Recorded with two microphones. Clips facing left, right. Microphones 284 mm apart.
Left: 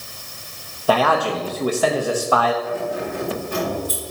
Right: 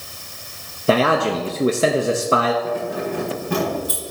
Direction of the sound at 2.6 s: 85° right.